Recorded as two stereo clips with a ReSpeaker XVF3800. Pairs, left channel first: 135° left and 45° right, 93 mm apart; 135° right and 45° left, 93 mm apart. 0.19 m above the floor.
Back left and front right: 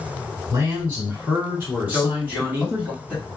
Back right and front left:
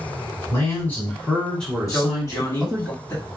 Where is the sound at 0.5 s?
90° right, 2 m; by 2.9 s 10° right, 1.7 m.